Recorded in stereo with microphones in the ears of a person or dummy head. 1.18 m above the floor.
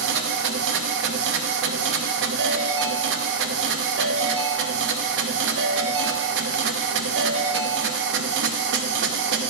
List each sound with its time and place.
0.0 s a machine running: 65° right (ahead or behind), 0.7 m
2.4 s a ringtone: 65° right (ahead or behind), 1.6 m